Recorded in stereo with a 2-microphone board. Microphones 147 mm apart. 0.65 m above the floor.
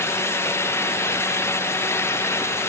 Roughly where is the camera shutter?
I don't hear a camera shutter.